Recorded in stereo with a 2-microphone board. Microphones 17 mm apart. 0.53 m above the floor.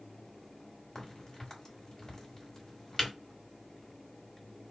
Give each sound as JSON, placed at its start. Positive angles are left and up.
{"t": 0.9, "sound": "a crack", "side_deg": 35, "distance_m": 1.6}